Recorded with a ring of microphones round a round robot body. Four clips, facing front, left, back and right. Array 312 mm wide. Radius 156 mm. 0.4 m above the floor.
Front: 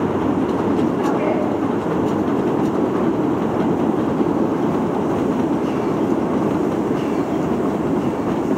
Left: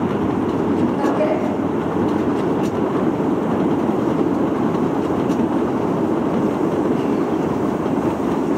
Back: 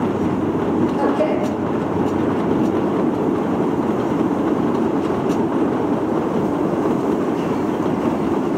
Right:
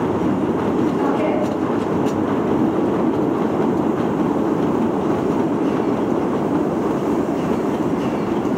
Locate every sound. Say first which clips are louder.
1.0 s a man speaking: even, back 1 dB; 150° left, 9.5 m